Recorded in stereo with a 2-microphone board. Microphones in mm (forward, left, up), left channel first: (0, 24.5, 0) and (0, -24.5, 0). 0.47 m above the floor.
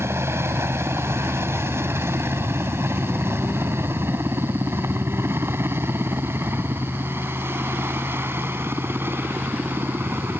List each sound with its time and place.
0.0 s a helicopter: 60° right (ahead or behind); by 10.4 s 50° right (ahead or behind)